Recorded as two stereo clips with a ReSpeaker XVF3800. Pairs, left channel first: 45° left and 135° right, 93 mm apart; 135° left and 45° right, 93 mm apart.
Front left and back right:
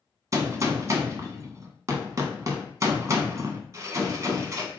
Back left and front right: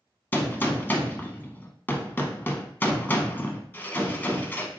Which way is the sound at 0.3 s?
170° right.